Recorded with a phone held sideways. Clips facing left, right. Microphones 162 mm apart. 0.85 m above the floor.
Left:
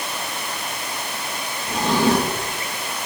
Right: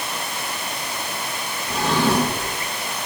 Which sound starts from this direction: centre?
A drawer, at 1.7 s.